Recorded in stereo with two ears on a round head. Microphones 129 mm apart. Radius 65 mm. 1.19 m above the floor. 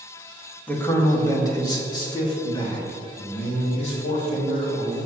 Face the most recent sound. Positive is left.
turn(degrees=55)  # may be behind; listen again after turning